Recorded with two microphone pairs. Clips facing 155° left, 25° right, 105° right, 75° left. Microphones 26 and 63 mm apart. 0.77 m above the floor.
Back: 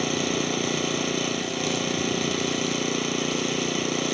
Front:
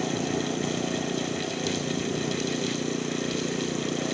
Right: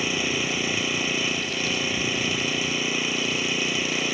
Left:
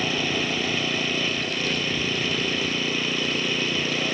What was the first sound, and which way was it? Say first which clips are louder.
An engine running: back 3 dB, left 1 dB; 175° left.